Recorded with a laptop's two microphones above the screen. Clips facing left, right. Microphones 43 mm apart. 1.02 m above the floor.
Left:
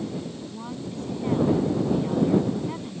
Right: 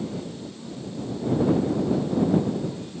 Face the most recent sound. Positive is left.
turn(degrees=60)  # may be behind; listen again after turning